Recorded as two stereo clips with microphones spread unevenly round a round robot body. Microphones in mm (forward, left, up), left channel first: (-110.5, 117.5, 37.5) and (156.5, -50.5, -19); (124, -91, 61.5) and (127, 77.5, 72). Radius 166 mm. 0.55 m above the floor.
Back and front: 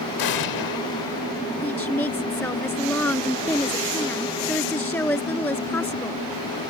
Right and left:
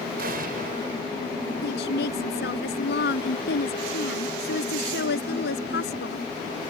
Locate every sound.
0.2 s an explosion: 135° left
1.6 s a woman speaking: 130° right